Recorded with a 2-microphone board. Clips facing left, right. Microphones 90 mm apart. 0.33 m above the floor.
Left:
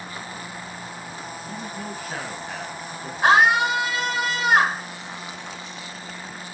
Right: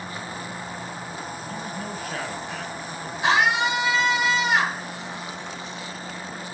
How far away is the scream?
About 5 m.